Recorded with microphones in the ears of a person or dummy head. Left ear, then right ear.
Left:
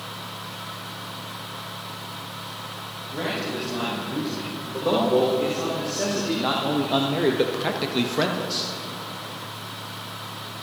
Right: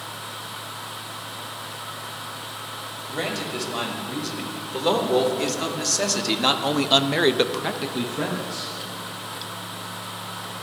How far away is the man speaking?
About 5 m.